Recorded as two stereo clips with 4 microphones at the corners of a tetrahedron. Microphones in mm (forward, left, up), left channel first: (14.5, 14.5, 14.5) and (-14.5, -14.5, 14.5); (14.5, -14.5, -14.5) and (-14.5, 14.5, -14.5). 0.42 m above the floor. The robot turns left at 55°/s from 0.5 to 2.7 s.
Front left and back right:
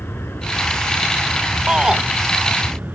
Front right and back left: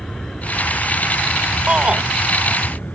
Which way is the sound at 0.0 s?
30° left.